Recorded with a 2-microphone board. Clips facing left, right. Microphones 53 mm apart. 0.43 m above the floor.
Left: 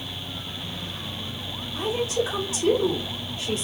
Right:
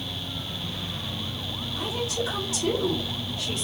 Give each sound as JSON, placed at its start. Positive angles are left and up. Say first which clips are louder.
{"t": 1.8, "sound": "a woman speaking", "louder": "left 5 dB", "side_deg": 20, "distance_m": 1.4}